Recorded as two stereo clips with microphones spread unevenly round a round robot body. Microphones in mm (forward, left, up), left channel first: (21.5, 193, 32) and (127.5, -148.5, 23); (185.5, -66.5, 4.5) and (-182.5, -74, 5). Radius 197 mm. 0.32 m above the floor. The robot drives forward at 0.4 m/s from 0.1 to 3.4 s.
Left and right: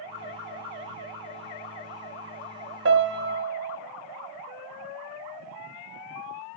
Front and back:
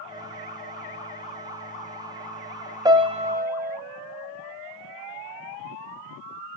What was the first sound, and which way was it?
A piano, 105° right.